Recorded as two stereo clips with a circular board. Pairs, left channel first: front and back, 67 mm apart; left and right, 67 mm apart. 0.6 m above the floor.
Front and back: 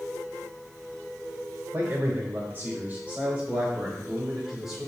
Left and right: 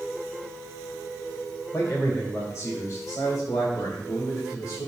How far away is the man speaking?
About 3 m.